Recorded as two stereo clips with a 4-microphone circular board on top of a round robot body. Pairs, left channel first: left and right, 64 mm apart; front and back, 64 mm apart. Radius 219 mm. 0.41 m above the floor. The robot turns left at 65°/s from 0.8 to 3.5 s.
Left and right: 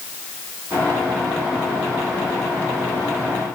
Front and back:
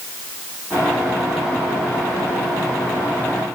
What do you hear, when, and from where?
Only background noise.